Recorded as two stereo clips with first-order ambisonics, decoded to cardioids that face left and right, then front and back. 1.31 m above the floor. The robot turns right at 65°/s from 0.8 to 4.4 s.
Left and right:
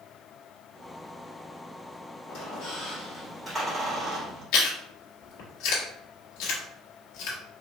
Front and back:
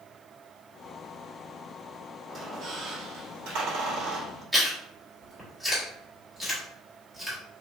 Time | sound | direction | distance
2.3 | a squeak | 100° left | 2.5 m
4.5 | chewing | 95° left | 1.7 m